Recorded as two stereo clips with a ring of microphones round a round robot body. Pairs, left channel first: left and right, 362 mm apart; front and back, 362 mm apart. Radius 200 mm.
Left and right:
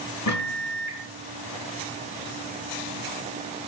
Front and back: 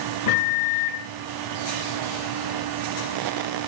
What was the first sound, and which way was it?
A microwave, 50° left.